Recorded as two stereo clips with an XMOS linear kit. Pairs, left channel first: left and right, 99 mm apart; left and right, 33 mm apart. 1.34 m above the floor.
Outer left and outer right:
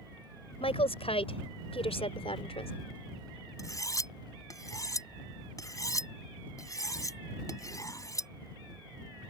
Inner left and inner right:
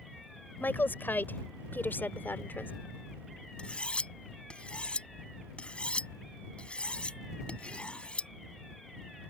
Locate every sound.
0.6 s a woman speaking: 85° left
3.6 s cutlery clinking: 35° left (ahead or behind)